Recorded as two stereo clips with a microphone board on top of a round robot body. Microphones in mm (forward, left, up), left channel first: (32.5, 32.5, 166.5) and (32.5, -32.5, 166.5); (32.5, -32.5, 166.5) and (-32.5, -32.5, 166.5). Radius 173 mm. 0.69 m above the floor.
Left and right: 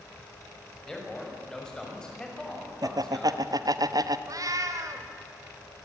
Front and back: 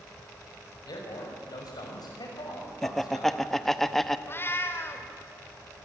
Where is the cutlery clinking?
I don't hear cutlery clinking.